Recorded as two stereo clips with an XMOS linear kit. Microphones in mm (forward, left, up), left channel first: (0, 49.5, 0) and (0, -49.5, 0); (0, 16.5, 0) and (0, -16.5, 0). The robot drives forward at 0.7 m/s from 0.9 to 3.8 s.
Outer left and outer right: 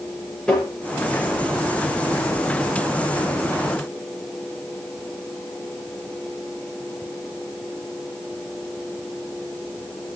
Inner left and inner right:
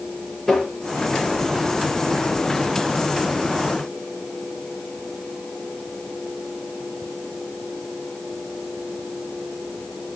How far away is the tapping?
About 6.5 m.